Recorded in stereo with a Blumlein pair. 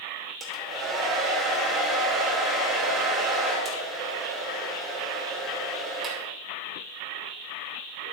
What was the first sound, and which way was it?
A hair dryer, 15° right.